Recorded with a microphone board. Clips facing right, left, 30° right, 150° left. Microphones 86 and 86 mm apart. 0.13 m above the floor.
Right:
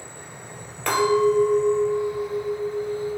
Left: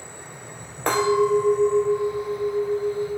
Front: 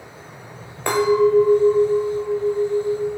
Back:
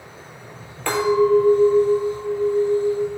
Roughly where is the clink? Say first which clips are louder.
Even, front 1 dB; ahead left.